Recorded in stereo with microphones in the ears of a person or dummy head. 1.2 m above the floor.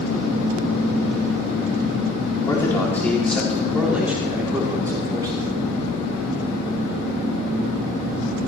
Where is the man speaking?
15° left (ahead or behind), 3.5 m; by 5.4 s 20° right (ahead or behind), 4 m.